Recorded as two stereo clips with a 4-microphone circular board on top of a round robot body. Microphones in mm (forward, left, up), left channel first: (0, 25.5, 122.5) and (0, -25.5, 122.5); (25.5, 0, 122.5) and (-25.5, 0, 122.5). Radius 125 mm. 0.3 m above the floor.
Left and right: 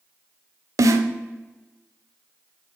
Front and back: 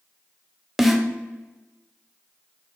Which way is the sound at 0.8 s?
95° right.